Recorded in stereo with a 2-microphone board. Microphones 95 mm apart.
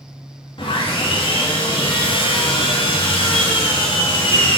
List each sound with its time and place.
0.6 s sawing: 65° left (ahead or behind), 2.5 m